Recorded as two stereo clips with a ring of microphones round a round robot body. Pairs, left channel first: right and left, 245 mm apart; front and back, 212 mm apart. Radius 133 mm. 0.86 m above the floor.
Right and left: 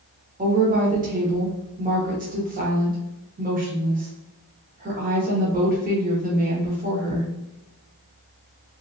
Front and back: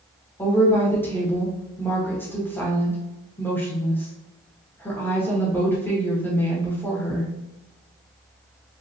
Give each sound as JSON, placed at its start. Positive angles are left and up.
{"t": 0.4, "sound": "a woman speaking", "azimuth_deg": 75, "distance_m": 0.9}